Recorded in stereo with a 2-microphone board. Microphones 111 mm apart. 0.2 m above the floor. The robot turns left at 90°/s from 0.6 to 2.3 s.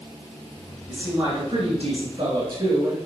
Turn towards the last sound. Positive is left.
turn(degrees=-135)